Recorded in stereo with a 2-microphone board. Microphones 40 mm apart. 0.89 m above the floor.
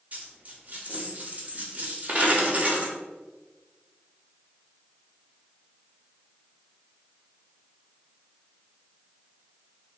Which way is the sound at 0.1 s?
30° right (ahead or behind).